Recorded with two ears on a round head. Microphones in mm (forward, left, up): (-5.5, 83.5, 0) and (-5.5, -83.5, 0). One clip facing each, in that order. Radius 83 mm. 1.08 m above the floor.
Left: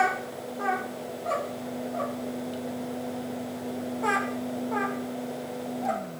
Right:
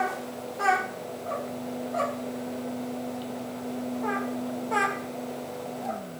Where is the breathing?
I don't hear breathing.